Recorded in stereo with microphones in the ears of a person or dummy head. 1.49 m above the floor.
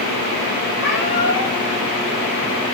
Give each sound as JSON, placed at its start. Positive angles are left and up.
{"t": 0.8, "sound": "a cat meowing", "side_deg": 60, "distance_m": 6.0}